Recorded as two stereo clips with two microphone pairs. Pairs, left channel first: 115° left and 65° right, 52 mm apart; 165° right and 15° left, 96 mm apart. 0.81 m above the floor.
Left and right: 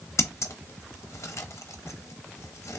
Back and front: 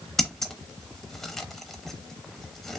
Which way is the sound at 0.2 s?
110° left.